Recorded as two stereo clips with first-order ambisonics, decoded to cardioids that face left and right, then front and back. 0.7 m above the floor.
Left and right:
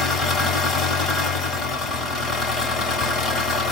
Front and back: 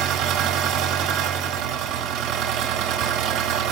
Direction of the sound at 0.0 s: 150° left.